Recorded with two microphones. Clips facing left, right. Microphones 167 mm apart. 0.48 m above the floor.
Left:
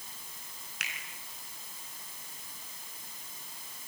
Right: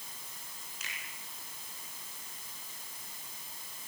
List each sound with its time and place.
0.8 s a finger snap: 70° left (ahead or behind), 5.5 m